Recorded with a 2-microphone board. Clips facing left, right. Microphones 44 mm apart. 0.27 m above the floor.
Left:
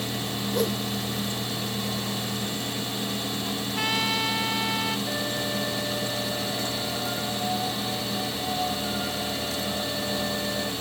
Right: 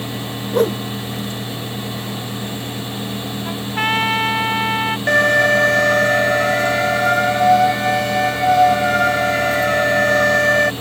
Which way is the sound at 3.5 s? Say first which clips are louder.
Right 10 dB; 45° right (ahead or behind).